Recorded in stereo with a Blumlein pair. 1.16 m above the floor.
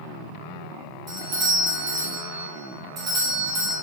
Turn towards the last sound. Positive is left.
turn(degrees=-30)